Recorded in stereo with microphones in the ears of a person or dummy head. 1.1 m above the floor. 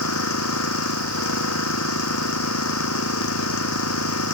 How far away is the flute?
No flute in this recording.